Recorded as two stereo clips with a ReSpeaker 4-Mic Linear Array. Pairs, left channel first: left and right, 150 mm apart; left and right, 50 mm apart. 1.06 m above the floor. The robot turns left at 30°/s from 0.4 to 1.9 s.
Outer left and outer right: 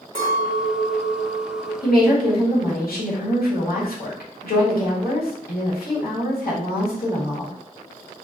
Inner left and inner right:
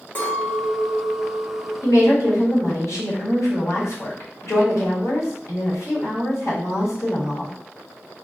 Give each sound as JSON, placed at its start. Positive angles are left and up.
{"t": 0.1, "sound": "a clink", "azimuth_deg": 145, "distance_m": 1.8}
{"t": 1.8, "sound": "a woman speaking", "side_deg": 85, "distance_m": 1.4}